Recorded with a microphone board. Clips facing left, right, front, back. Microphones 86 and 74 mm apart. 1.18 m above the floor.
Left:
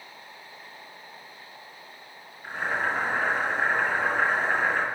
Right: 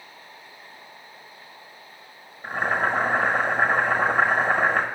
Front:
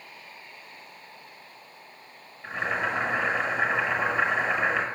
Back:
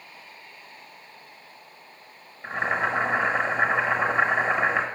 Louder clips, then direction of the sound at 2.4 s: Right 4 dB, back 3 dB; 120° right.